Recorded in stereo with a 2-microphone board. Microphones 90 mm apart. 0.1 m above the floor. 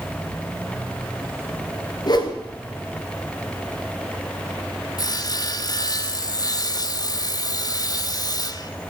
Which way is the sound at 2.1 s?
45° left (ahead or behind).